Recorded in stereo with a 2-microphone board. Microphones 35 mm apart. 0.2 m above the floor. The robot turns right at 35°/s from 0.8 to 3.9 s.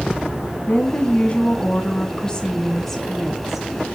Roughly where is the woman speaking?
Left.